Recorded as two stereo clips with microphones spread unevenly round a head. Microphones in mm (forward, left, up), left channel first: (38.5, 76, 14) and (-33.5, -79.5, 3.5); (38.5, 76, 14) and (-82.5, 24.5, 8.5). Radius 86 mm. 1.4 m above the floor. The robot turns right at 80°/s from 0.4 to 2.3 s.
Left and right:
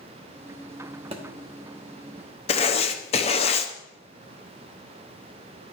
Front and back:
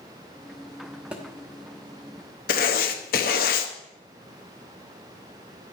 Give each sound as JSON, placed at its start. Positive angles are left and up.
{"t": 1.1, "sound": "a thud", "azimuth_deg": -75, "distance_m": 0.9}
{"t": 2.5, "sound": "writing", "azimuth_deg": 10, "distance_m": 0.8}